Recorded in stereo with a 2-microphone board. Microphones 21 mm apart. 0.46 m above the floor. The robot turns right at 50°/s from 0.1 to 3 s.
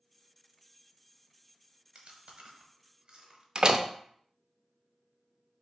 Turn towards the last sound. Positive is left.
turn(degrees=-40)  # may be behind; listen again after turning